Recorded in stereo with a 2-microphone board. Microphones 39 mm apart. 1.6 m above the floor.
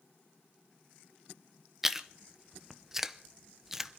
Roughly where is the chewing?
Centre.